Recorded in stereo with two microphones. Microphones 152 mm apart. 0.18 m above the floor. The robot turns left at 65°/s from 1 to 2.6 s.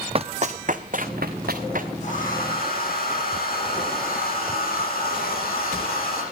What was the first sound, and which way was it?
Running footsteps, 40° right (ahead or behind).